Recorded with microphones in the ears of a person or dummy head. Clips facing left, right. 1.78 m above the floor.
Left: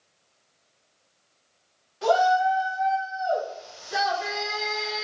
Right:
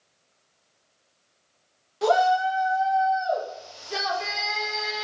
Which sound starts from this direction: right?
A shout, at 2.0 s.